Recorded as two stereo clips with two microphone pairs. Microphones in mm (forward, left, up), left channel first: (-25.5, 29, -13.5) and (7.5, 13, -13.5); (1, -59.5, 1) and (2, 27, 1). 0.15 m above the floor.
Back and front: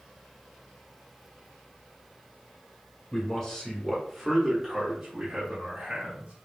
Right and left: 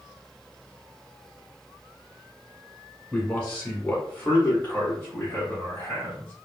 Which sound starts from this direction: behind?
A man speaking, at 3.1 s.